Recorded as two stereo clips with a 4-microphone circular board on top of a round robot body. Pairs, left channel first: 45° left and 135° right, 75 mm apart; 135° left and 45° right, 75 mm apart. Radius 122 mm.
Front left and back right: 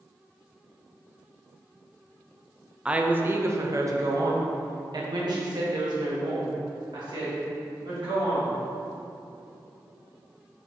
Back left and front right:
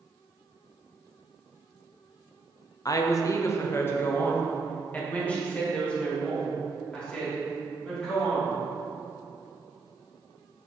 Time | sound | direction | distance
2.9 | a woman speaking | 150° left | 0.8 m